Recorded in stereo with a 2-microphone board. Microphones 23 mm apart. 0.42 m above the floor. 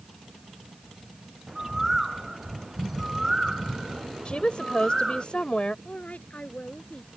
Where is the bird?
15° right (ahead or behind).